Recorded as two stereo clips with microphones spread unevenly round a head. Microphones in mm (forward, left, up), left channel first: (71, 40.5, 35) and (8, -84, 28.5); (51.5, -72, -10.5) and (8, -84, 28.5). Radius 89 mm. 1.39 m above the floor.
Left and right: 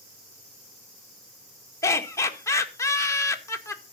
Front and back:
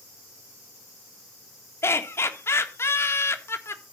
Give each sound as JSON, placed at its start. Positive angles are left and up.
{"t": 1.8, "sound": "laughter", "azimuth_deg": -5, "distance_m": 1.9}